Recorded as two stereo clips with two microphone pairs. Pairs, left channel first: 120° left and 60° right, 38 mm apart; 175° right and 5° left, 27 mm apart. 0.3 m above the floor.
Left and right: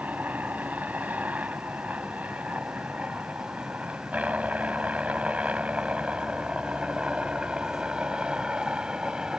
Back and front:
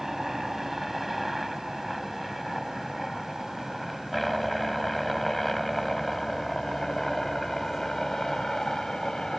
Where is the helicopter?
75° right; by 9.4 s 115° right.